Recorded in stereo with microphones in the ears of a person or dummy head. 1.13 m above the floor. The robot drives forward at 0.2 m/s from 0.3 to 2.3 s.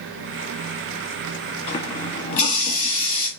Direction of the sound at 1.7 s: 30° left (ahead or behind).